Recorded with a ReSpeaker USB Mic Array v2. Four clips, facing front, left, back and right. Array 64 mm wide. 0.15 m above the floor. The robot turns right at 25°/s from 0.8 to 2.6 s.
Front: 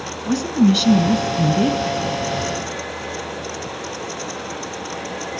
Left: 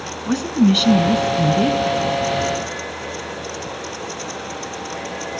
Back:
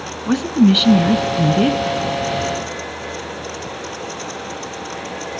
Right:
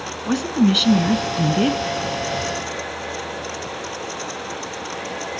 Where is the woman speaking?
175° right, 1.3 m; by 1.8 s 145° right, 1.3 m.